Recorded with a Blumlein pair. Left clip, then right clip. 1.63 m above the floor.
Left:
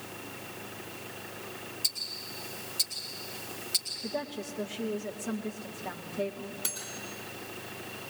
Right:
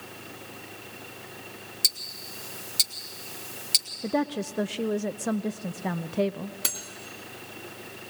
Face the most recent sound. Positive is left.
turn(degrees=-30)